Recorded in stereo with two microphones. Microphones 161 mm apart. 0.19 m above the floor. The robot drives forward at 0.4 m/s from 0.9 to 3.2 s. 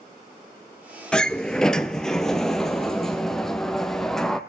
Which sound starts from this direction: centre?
A sliding door, at 1.1 s.